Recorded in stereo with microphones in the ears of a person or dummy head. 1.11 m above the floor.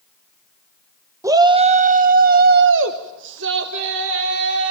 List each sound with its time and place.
1.2 s a shout: 10° right (ahead or behind), 0.9 m; by 4.7 s 65° right (ahead or behind), 1.9 m